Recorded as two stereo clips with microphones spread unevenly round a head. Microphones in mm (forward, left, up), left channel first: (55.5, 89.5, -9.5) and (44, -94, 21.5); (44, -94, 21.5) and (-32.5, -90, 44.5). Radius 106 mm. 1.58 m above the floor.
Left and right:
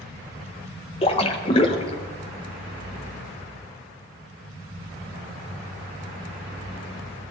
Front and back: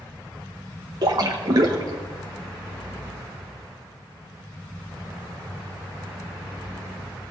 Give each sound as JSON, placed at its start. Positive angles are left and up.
{"t": 1.0, "sound": "a splash", "azimuth_deg": 155, "distance_m": 0.8}